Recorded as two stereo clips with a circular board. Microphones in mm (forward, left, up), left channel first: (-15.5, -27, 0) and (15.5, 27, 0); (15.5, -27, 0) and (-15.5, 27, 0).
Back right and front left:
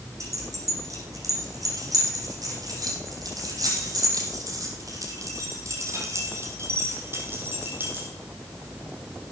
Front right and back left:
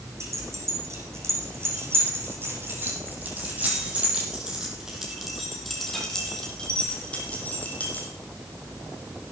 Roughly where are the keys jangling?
Left.